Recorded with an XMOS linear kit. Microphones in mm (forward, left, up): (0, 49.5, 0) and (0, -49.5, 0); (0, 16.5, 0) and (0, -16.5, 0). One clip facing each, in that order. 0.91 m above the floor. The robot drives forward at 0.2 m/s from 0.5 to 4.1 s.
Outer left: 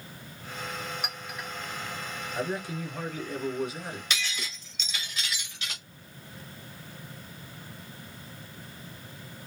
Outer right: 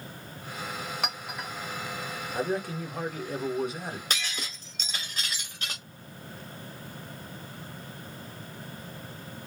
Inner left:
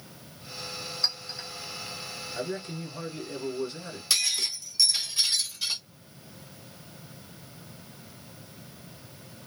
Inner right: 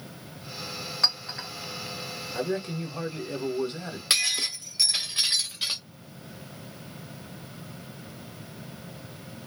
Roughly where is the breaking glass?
Right.